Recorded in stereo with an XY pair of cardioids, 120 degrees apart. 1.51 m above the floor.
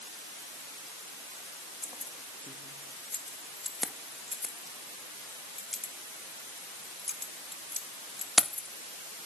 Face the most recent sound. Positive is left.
turn(degrees=10)